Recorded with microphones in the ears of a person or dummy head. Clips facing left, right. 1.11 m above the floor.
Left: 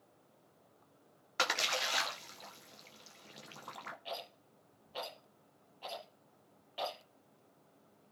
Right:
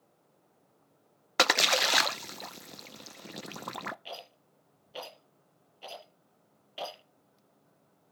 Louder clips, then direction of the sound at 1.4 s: Right 9 dB; 65° right (ahead or behind).